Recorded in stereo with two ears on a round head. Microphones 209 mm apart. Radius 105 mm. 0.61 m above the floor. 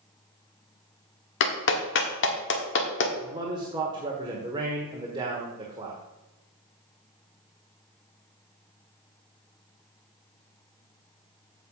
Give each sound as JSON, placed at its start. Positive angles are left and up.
{"t": 1.4, "sound": "a clap", "side_deg": 55, "distance_m": 1.4}
{"t": 3.2, "sound": "a man speaking", "side_deg": -20, "distance_m": 1.4}